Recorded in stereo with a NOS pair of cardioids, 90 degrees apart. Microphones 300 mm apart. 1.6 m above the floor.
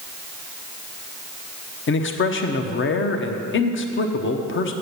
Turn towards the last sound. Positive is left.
turn(degrees=40)